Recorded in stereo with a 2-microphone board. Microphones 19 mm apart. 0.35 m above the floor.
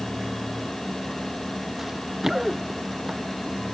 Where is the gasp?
No gasp in this recording.